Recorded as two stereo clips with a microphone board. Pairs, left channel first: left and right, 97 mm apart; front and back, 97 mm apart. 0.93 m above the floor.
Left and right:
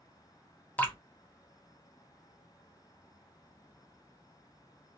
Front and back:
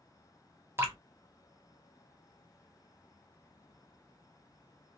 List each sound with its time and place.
0.8 s dripping: 145° left, 0.9 m